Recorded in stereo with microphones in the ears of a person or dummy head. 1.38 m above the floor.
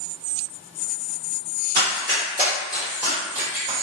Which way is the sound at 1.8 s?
35° right (ahead or behind).